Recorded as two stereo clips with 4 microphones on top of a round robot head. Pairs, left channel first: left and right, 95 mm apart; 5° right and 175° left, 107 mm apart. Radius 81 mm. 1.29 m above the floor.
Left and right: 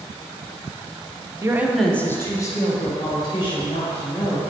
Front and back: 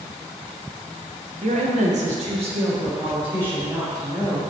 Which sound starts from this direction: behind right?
A woman speaking, at 1.4 s.